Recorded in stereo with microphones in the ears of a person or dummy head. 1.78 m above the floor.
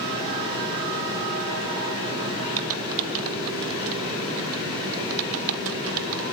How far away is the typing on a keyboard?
About 1.3 m.